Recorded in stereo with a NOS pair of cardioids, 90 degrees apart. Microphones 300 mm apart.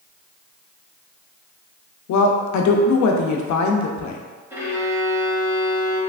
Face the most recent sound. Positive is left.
turn(degrees=-10)